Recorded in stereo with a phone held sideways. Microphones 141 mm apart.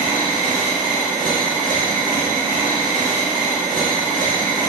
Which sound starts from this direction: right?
A machine running, at 0.0 s.